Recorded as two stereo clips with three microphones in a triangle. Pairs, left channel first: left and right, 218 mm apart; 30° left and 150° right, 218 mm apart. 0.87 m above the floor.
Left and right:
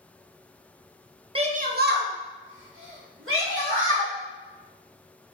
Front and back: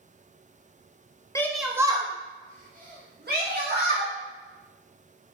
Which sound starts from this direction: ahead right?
A shout, at 1.4 s.